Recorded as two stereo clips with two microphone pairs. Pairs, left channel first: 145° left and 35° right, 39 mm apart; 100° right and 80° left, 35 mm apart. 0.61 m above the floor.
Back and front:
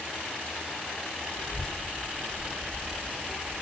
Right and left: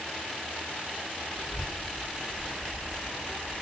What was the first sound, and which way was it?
A child speaking, 55° left.